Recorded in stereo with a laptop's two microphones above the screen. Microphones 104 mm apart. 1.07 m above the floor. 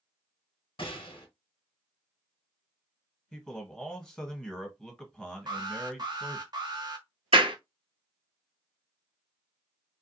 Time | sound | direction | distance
0.8 | a gunshot | 55° left (ahead or behind) | 1.2 m
3.3 | a man speaking | 5° left (ahead or behind) | 1.3 m
5.5 | an alarm | 40° right (ahead or behind) | 0.8 m
7.3 | a clap | 55° right (ahead or behind) | 0.5 m